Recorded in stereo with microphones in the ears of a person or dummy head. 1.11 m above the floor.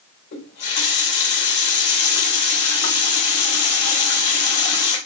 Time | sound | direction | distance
0.3 | a running tap | 60° left (ahead or behind) | 2 m